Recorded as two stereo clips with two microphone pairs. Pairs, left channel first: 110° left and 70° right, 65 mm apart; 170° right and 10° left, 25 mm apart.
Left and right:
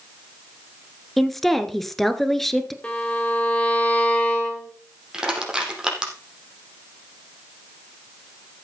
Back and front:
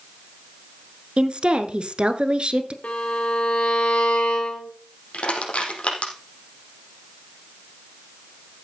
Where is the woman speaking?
25° left, 1.6 m.